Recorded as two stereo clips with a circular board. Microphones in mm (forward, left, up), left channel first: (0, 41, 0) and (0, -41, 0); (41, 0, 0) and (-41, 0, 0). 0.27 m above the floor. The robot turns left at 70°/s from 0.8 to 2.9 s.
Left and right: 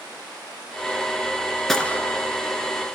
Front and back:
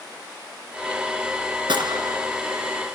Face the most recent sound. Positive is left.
turn(degrees=95)